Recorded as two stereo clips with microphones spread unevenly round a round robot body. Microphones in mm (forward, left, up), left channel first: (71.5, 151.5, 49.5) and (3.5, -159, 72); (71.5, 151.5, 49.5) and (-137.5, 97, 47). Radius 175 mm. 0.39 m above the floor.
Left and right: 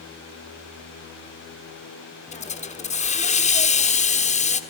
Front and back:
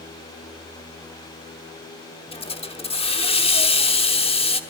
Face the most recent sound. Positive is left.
turn(degrees=45)